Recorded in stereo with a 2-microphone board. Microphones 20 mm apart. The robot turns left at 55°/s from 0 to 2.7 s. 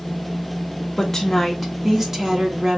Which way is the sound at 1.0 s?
30° left.